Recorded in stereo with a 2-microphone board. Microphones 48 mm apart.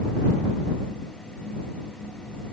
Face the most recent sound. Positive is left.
No sound to turn to.